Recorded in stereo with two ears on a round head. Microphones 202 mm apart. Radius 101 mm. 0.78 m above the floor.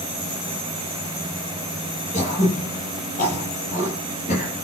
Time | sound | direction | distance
2.1 | throat clearing | 40° left (ahead or behind) | 9.5 m